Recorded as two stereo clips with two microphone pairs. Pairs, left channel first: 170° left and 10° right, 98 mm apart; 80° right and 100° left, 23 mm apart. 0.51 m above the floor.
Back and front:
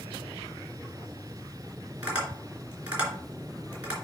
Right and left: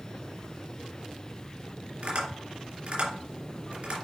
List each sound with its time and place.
2.0 s tapping: 65° left, 3 m